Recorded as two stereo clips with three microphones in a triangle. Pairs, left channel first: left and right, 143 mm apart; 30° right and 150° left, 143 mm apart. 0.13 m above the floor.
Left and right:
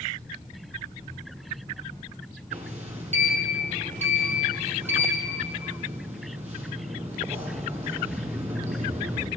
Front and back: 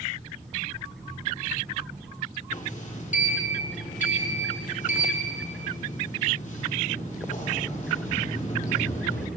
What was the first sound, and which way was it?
A sliding door, 55° right.